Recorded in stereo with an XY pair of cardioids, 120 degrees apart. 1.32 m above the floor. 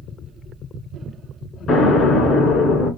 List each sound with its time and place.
1.7 s an explosion: 60° left, 1.9 m